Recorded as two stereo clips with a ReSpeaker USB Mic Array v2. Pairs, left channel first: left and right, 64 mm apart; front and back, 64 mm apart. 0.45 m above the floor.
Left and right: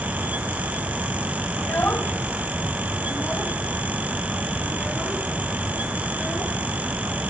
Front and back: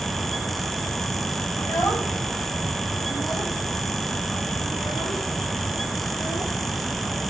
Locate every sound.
1.6 s a child speaking: 40° left, 2.5 m; by 6.5 s 5° left, 4.5 m